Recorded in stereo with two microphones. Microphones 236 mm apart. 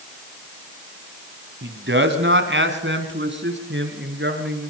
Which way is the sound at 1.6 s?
50° right (ahead or behind).